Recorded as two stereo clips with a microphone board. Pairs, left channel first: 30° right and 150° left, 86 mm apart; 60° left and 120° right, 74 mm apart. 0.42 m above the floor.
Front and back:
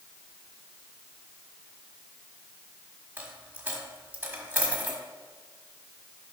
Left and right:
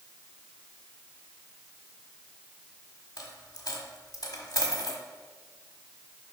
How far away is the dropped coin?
About 1.3 m.